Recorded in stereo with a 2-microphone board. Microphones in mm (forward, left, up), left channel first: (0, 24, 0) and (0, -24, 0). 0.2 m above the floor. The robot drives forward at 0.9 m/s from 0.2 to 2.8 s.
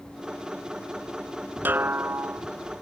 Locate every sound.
1.6 s a snare drum: 45° right (ahead or behind); by 2.4 s 60° right (ahead or behind)